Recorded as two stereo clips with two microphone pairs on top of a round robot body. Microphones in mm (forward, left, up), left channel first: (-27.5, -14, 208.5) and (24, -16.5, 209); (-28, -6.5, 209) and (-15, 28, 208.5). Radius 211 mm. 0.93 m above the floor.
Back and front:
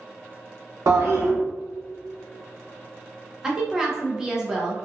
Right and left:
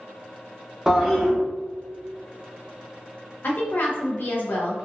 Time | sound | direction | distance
0.9 | a toilet flushing | 10° right | 0.8 m
3.4 | a woman speaking | 80° right | 0.7 m